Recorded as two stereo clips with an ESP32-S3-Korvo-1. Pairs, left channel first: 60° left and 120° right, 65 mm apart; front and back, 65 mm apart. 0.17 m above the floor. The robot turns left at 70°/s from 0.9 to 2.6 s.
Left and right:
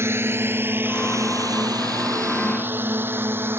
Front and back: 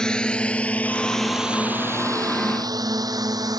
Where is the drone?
80° right; by 3.6 s 175° right.